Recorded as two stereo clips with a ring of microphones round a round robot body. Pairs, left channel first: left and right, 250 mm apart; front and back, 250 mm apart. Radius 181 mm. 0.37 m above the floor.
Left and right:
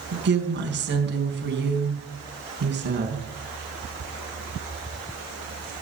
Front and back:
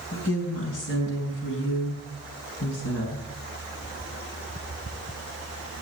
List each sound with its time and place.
0.1 s a woman speaking: 50° right, 4.5 m